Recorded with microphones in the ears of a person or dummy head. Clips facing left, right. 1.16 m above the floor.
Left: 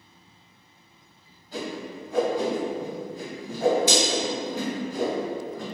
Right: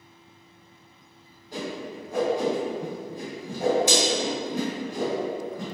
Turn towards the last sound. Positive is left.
turn(degrees=-20)  # may be behind; listen again after turning